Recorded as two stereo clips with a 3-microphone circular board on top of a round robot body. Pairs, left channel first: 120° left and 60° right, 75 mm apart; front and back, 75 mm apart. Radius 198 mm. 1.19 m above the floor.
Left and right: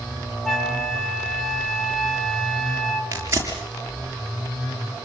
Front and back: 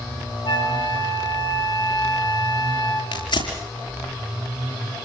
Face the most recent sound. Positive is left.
turn(degrees=-5)